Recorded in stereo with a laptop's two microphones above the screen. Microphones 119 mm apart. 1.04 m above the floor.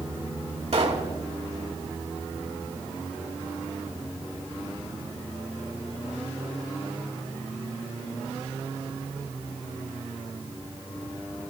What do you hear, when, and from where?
0.7 s a pop: 60° right (ahead or behind), 1.5 m